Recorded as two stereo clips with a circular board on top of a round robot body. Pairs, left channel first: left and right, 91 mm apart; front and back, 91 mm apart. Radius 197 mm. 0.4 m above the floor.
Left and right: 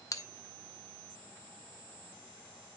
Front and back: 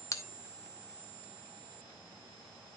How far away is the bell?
About 1.8 m.